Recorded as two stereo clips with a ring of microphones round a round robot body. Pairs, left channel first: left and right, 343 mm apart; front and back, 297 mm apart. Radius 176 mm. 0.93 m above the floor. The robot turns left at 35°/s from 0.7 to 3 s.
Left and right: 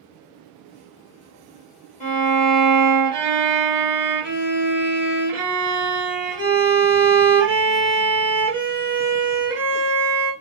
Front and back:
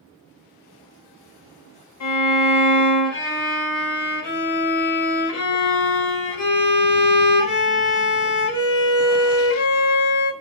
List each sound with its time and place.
2.0 s a violin: 20° left, 1.1 m; by 10.3 s 15° right, 1.1 m